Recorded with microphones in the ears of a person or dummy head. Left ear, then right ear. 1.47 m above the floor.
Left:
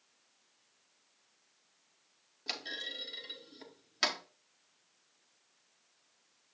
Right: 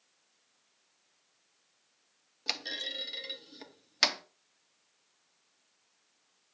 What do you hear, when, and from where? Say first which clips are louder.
2.5 s a clunk: right 4 dB; 25° right (ahead or behind), 0.6 m